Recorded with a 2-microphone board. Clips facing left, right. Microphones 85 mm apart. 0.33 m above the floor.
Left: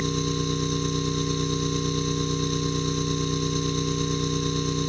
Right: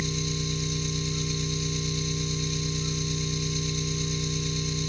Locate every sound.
0.0 s an engine running: 55° left (ahead or behind), 2 m